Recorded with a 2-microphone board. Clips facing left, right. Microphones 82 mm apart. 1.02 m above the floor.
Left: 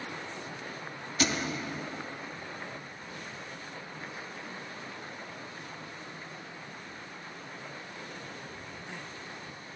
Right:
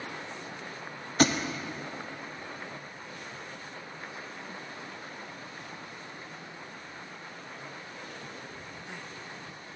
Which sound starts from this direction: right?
A thud, at 1.2 s.